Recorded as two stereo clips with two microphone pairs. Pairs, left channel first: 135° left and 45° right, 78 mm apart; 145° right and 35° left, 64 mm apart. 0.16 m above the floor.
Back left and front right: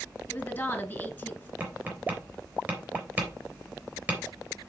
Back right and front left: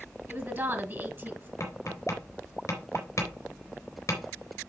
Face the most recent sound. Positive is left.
turn(degrees=-110)